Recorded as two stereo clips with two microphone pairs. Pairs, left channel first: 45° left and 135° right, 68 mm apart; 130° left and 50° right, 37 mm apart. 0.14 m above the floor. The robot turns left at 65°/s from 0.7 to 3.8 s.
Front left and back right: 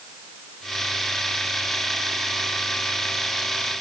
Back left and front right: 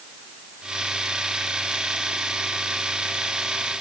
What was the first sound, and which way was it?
Only background noise.